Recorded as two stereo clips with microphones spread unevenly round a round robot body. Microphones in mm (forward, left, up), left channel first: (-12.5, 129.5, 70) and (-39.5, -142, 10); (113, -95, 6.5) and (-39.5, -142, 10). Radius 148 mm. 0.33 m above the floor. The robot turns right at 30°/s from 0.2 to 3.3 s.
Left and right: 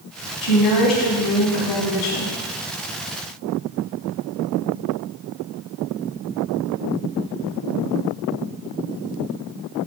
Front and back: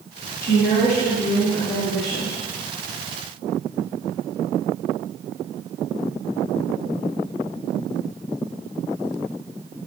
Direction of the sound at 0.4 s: 60° left.